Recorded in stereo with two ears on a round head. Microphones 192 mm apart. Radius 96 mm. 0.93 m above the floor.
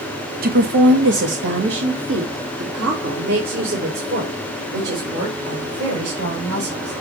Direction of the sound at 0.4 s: 40° right (ahead or behind).